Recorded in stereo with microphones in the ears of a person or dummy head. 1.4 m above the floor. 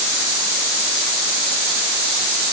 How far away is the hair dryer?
No hair dryer in this recording.